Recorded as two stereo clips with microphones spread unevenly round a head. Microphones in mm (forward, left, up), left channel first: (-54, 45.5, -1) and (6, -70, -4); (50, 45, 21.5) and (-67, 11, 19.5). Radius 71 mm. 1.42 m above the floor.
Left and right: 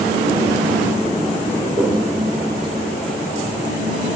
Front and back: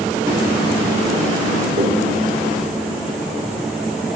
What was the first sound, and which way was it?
A toilet flushing, 160° right.